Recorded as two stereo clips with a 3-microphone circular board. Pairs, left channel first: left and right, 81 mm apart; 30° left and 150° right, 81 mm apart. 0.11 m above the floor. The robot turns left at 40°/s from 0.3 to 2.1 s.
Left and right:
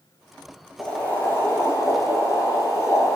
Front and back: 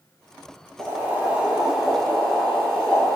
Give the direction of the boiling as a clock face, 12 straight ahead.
7 o'clock.